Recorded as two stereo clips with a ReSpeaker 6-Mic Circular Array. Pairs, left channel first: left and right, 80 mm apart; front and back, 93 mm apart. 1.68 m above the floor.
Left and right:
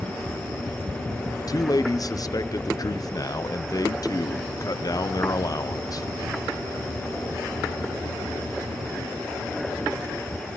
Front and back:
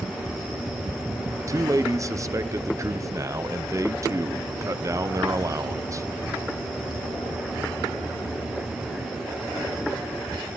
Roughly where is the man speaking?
Behind left.